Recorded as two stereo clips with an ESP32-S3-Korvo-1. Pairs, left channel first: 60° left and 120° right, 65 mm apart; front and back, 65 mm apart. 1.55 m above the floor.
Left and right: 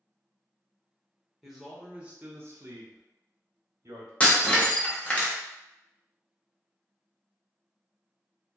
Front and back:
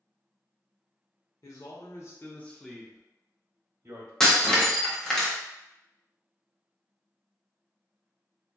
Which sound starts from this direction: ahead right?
A man speaking, at 1.4 s.